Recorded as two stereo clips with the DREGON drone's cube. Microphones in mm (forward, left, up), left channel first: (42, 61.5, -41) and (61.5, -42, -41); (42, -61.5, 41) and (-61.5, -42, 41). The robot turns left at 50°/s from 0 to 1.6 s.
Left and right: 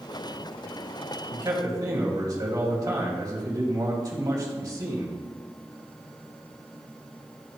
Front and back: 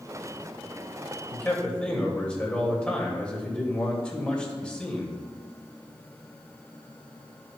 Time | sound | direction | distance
1.3 | a man speaking | 70° right | 1.6 m